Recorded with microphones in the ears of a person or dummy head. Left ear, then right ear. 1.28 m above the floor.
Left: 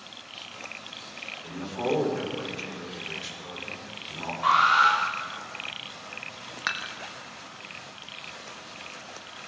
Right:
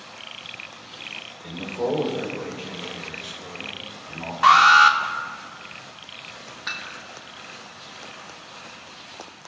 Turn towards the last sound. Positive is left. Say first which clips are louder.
# left 1 dB
turn(degrees=60)  # may be behind; listen again after turning